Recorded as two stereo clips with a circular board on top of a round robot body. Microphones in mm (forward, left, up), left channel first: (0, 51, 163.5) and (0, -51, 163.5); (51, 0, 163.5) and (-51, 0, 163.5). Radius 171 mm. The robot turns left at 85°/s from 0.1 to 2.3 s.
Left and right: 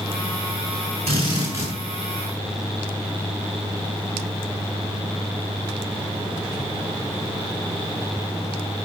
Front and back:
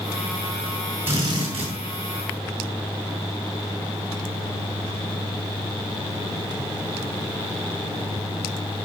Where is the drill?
115° right, 6 m; by 1.7 s 170° right, 6 m.